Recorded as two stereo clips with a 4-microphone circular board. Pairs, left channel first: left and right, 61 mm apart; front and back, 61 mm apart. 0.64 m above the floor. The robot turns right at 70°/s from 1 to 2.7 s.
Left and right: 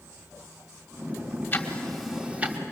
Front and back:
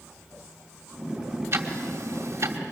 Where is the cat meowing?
No cat meowing in this recording.